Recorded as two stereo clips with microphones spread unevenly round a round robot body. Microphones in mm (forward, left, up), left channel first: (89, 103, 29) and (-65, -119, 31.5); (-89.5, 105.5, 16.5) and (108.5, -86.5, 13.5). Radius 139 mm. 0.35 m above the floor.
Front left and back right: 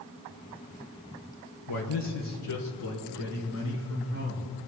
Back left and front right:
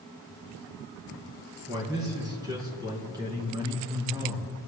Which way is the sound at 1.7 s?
30° left.